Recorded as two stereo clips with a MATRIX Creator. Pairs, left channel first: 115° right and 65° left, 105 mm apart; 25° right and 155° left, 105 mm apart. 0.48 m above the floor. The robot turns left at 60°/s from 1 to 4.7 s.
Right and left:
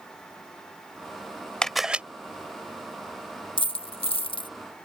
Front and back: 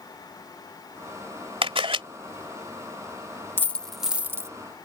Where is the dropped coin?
90° right; by 4.5 s 145° right.